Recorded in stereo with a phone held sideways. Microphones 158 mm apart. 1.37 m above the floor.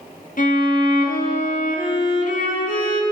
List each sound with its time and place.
0.4 s a violin: 60° left (ahead or behind), 2.0 m